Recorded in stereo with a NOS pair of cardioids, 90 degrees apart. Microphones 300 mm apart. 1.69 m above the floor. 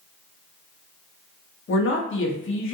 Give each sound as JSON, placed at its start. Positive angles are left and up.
{"t": 1.7, "sound": "a man speaking", "azimuth_deg": 40, "distance_m": 1.2}